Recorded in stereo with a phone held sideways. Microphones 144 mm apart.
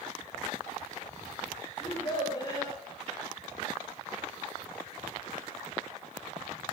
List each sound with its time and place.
1.8 s a child speaking: 30° left (ahead or behind), 6.5 m